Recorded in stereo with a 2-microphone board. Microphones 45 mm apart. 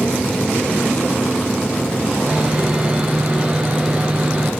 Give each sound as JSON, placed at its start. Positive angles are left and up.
{"t": 2.3, "sound": "sawing", "side_deg": -25, "distance_m": 4.5}